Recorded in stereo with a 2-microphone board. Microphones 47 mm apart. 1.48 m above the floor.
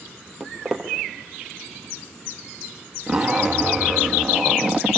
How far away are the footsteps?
About 3 m.